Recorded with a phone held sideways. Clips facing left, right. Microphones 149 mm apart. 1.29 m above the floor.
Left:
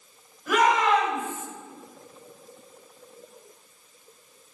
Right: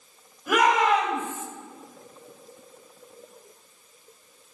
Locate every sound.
0.5 s a shout: 10° right (ahead or behind), 7.5 m; by 1.5 s 15° right (ahead or behind), 7 m